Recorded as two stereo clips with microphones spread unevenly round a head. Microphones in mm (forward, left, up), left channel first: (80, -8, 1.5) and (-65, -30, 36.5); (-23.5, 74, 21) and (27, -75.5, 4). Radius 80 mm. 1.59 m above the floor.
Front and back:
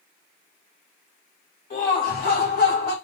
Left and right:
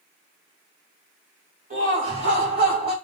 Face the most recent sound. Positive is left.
turn(degrees=-10)